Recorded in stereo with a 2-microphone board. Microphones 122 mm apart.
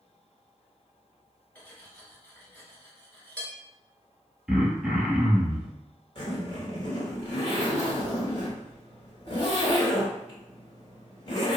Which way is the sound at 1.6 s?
15° left (ahead or behind).